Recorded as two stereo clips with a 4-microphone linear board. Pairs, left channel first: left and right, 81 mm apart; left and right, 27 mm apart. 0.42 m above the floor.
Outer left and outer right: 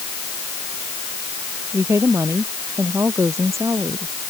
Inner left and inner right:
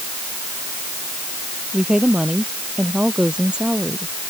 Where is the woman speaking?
40° right (ahead or behind).